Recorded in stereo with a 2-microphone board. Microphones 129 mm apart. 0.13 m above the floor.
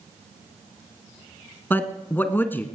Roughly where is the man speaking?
Centre.